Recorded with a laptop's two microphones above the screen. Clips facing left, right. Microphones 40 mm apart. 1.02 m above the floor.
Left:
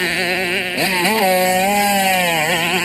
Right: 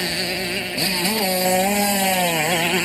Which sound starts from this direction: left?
A motorcycle, at 0.0 s.